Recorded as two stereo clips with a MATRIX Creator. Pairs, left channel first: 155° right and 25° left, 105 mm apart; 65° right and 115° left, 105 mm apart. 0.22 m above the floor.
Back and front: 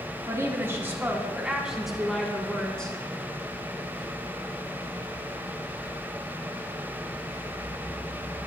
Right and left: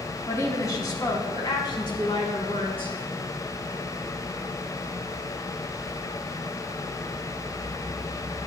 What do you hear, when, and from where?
0.3 s a woman speaking: 20° right, 1.5 m; by 3.0 s 80° right, 2.0 m